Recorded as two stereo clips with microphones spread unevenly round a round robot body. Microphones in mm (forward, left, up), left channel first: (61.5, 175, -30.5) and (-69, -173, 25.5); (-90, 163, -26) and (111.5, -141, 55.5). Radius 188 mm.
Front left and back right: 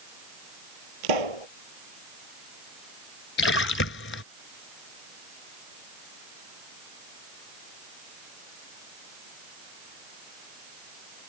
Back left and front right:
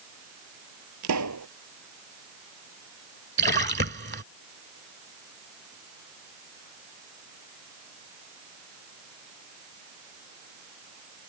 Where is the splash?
10° left.